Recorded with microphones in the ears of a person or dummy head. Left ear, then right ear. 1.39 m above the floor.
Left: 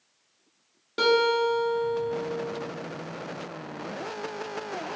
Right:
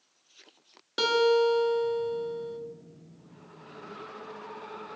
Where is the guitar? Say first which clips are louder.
Left 1 dB; 20° right (ahead or behind), 0.9 m.